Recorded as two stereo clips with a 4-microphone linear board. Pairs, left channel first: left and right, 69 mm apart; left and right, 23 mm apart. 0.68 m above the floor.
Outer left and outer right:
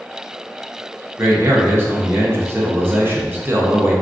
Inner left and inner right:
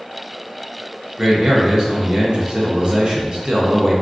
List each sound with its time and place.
1.2 s a man speaking: 35° right (ahead or behind), 0.6 m